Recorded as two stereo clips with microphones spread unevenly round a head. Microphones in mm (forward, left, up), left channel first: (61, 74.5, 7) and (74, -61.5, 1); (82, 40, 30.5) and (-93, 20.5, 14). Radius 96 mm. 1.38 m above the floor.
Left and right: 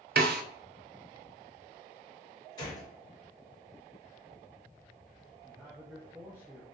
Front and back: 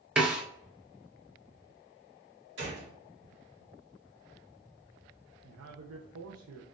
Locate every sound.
0.2 s a snare drum: 90° right, 0.5 m
2.6 s a gunshot: 165° left, 1.7 m
5.4 s a man speaking: 165° right, 0.6 m